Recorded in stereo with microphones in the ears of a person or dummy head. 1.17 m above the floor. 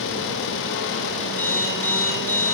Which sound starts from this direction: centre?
An alarm clock, at 1.4 s.